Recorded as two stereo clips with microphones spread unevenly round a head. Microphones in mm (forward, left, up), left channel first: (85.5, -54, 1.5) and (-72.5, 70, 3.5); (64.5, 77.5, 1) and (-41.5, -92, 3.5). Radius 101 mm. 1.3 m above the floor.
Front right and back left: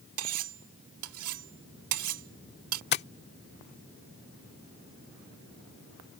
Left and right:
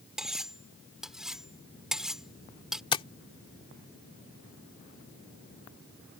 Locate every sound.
0.2 s cutlery clinking: 150° left
2.9 s tapping: 5° right